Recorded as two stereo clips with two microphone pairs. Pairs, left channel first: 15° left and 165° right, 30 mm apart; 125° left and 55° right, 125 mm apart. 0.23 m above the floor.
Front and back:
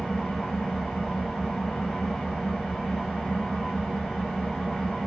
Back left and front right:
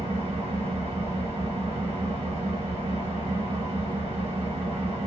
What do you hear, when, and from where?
0.0 s an engine running: 50° right, 1.2 m